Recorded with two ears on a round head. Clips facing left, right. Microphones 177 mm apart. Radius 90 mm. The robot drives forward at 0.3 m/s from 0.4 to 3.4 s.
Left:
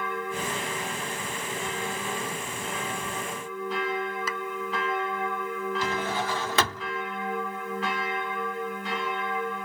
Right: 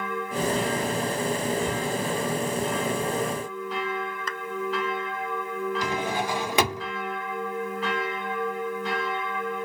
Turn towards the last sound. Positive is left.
turn(degrees=-15)  # may be behind; listen again after turning